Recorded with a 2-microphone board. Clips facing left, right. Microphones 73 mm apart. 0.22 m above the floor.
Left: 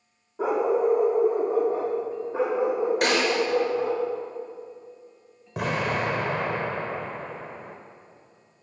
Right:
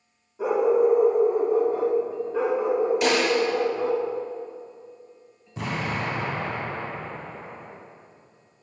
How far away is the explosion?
About 3 m.